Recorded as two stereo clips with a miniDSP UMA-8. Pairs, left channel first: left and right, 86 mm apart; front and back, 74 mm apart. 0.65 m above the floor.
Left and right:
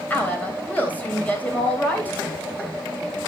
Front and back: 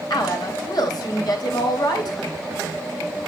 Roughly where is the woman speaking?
Ahead.